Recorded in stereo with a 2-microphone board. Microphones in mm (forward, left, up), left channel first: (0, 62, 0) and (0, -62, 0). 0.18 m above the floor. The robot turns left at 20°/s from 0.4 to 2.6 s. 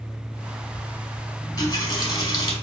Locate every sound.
1.4 s a running tap: 30° left (ahead or behind), 1.1 m; by 2.5 s 35° left (ahead or behind), 1.1 m